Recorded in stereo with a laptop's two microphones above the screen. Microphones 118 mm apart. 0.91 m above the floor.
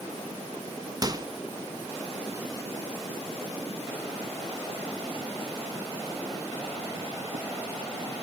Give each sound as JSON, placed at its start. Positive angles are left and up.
{"t": 1.0, "sound": "a microwave", "side_deg": -30, "distance_m": 0.9}